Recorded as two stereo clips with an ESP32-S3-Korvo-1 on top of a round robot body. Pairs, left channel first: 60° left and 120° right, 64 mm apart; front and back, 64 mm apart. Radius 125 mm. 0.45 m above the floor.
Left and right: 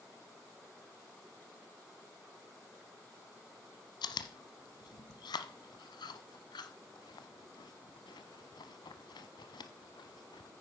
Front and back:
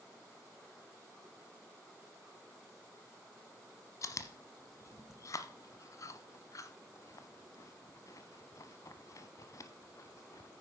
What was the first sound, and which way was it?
Chewing, 45° left.